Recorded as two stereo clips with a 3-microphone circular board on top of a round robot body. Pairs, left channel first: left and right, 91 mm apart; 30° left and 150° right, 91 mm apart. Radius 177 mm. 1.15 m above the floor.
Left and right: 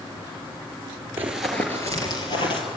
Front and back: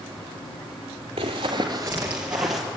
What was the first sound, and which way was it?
Running footsteps, 155° right.